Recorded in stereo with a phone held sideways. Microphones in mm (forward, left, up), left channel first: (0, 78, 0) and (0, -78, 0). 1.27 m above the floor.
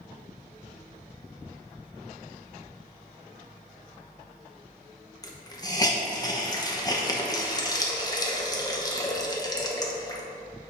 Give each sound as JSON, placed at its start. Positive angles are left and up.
{"t": 5.2, "sound": "a hiss", "side_deg": 25, "distance_m": 0.9}